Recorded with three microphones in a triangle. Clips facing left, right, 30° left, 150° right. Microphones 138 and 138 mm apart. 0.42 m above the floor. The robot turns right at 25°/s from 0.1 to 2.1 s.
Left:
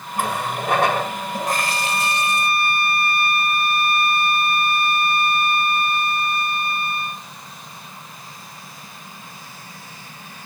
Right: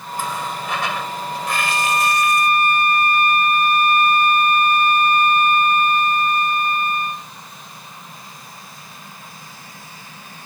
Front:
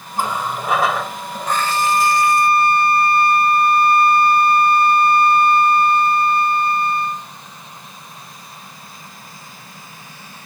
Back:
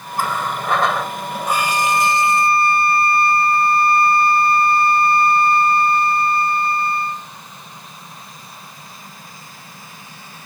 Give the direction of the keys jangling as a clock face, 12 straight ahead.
I don't hear keys jangling.